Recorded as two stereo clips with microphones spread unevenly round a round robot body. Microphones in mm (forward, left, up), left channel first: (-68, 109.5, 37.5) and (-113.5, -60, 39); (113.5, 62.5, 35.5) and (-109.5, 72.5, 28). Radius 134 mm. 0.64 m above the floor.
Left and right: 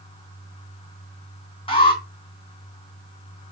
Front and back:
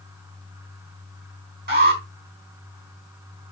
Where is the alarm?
135° left, 4 m.